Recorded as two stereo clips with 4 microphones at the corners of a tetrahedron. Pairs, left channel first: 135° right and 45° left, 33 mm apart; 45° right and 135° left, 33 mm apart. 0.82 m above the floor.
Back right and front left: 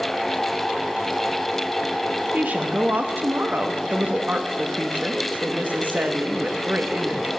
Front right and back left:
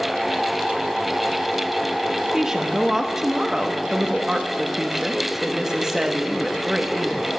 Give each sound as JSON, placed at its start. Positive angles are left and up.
{"t": 2.3, "sound": "a woman speaking", "azimuth_deg": 60, "distance_m": 0.8}